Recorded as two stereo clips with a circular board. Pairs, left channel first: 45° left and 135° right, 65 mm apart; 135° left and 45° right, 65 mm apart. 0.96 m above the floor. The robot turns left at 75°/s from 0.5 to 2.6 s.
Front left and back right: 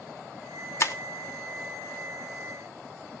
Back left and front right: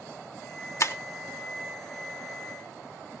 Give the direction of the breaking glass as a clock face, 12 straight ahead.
9 o'clock.